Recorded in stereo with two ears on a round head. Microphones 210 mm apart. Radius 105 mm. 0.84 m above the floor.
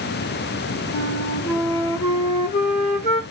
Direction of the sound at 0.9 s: 35° left (ahead or behind).